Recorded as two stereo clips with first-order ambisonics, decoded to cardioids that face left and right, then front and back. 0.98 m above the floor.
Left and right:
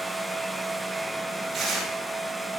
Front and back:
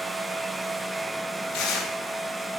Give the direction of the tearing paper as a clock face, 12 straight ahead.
1 o'clock.